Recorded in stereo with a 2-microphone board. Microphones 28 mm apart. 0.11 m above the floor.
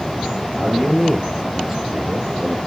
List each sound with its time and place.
0.6 s a man speaking: 15° left (ahead or behind), 3 m; by 2.6 s 50° right (ahead or behind), 2.5 m